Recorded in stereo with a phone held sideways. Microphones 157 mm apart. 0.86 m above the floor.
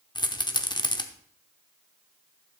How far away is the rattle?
About 0.7 m.